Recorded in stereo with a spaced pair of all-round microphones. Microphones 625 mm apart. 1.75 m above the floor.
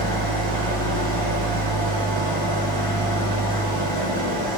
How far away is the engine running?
About 7.5 m.